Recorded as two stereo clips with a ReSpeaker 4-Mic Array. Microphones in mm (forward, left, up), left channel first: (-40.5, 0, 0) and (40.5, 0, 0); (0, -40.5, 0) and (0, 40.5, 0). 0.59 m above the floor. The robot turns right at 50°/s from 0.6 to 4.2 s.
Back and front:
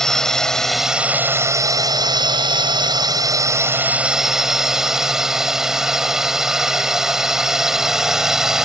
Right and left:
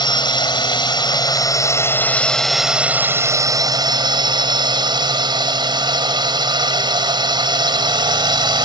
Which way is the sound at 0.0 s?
95° right.